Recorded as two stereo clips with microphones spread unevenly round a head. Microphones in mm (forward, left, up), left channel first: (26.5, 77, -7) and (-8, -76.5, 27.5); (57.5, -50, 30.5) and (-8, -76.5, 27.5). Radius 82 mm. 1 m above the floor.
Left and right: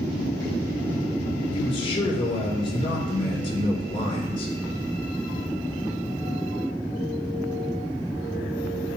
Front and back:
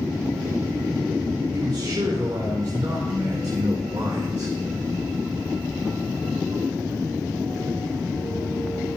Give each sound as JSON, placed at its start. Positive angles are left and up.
{"t": 1.5, "sound": "a man speaking", "azimuth_deg": 140, "distance_m": 3.5}